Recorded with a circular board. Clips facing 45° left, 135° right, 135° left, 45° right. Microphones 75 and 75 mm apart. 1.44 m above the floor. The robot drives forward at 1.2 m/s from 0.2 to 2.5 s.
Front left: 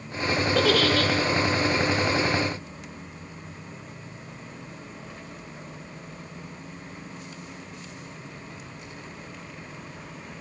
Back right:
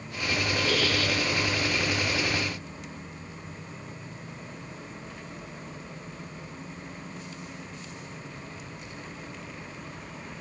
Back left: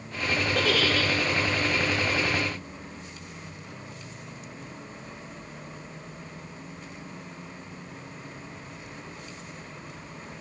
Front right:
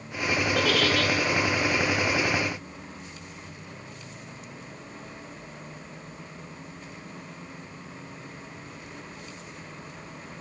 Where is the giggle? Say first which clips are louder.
Front left 7 dB, front right 1 dB; 45° left, 5.5 m; by 1.1 s 50° left, 5 m.